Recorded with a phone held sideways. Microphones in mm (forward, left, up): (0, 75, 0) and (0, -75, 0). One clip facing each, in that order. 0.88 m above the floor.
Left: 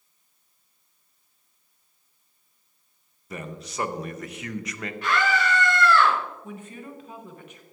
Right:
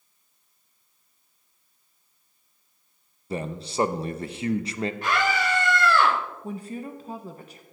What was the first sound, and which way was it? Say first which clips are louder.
A man speaking: right 6 dB; 30° right (ahead or behind).